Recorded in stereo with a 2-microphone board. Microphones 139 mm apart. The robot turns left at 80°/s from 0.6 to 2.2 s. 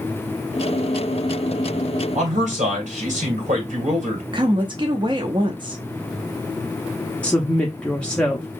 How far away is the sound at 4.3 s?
About 0.6 m.